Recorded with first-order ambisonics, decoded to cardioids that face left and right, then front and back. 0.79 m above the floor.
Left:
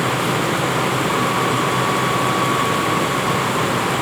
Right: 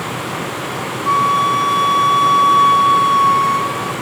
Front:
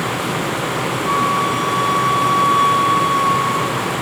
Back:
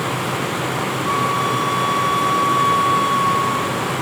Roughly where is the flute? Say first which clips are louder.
Right 5 dB, front 2 dB; right.